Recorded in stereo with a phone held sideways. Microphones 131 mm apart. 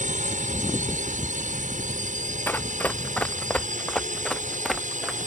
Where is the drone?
75° right (ahead or behind).